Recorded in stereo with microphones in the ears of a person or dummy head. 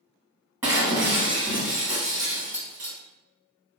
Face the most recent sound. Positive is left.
turn(degrees=-15)  # may be behind; listen again after turning